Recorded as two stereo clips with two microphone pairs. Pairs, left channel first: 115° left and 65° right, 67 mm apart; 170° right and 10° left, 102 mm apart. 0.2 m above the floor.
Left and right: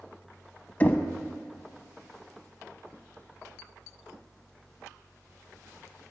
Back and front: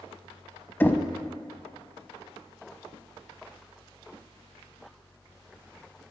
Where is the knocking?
140° left, 0.7 m.